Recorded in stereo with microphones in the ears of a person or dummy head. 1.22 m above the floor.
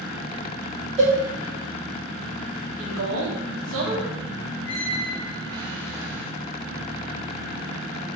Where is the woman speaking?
85° right, 0.9 m.